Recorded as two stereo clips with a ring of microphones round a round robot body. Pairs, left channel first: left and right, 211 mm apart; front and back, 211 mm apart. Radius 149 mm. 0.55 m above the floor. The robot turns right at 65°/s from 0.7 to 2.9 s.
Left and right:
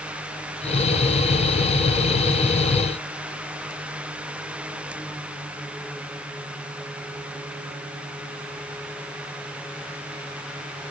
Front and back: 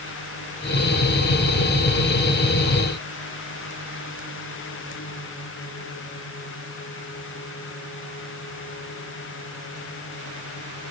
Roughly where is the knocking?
No knocking in this recording.